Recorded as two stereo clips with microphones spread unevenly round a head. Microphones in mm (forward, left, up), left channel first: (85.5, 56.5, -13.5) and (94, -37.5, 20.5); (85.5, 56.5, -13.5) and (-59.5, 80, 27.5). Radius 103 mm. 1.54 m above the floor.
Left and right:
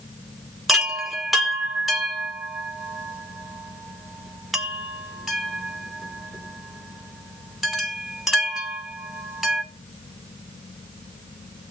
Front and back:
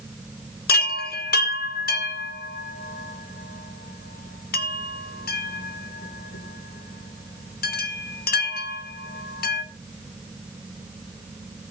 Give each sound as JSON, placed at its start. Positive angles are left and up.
{"t": 0.7, "sound": "a chime", "azimuth_deg": 0, "distance_m": 3.0}